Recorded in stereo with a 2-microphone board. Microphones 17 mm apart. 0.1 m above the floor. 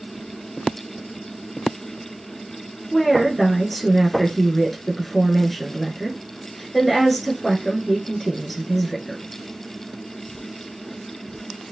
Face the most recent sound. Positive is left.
turn(degrees=5)  # may be behind; listen again after turning